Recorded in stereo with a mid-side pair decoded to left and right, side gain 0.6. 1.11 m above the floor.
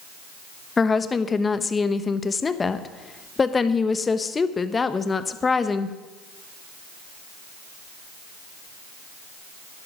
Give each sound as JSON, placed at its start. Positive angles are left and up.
{"t": 0.8, "sound": "a woman speaking", "azimuth_deg": 25, "distance_m": 0.9}